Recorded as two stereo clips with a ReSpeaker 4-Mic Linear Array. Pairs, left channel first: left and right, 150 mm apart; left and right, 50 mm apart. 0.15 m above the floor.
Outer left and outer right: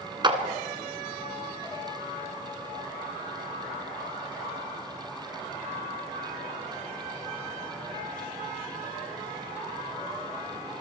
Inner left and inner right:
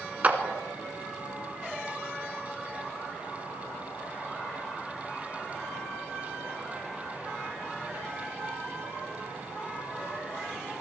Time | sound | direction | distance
0.2 | a clap | 30° right (ahead or behind) | 1.7 m